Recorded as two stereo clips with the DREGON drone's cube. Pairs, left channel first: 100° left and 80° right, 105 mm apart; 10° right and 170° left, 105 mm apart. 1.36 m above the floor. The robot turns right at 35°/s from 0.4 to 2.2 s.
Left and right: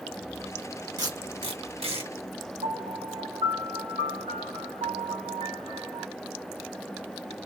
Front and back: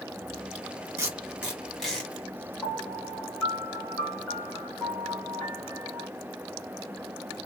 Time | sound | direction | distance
1.0 | tape being pulled | 130° right | 2.5 m
2.6 | a piano | 85° right | 1.9 m